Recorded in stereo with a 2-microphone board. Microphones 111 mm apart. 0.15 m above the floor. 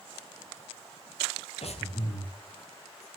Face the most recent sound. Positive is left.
turn(degrees=65)  # may be behind; listen again after turning